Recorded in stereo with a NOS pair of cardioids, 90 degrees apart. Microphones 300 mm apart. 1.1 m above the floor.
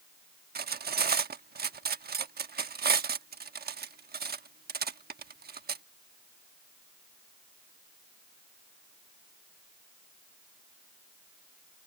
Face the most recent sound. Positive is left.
turn(degrees=-35)